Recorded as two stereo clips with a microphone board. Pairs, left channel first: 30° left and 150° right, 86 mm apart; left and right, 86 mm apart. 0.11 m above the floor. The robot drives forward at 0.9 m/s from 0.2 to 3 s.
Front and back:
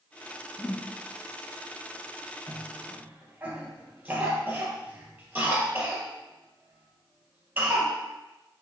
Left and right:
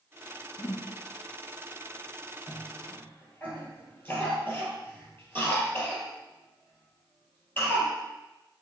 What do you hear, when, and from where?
0.6 s a whoosh: 55° left, 0.7 m; by 0.9 s 100° left, 0.7 m
2.5 s a cough: 145° left, 2.5 m; by 8.0 s 150° left, 3 m